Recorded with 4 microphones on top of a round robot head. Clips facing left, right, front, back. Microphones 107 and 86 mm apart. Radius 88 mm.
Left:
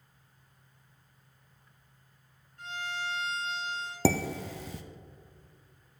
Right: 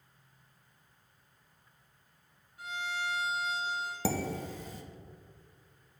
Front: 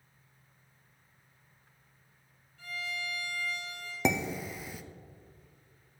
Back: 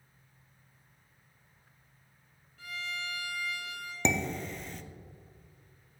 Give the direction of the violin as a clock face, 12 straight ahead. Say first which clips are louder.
Even, front 1 dB; 6 o'clock.